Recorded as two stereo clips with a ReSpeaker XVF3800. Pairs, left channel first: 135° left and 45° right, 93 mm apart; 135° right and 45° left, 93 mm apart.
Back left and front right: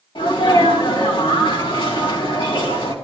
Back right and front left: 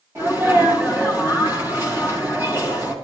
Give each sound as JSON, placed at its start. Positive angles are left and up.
{"t": 0.1, "sound": "a sneeze", "azimuth_deg": 110, "distance_m": 3.5}